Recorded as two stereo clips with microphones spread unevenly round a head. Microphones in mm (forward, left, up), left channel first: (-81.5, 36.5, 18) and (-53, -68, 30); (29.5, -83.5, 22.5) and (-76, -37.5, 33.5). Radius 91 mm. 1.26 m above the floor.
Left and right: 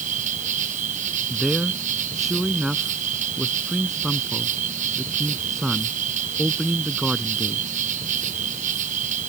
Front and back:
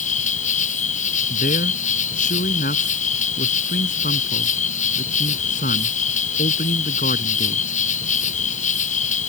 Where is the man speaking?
15° left.